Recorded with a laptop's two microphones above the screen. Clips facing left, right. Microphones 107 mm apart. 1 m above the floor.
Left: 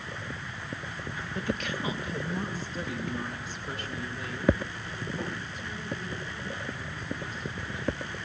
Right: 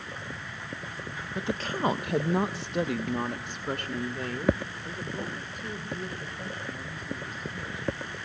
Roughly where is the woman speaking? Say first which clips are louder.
Right 2 dB; centre.